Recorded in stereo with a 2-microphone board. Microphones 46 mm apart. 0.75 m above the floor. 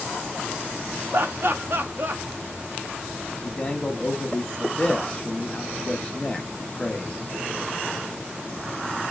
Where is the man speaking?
20° left (ahead or behind), 0.9 m.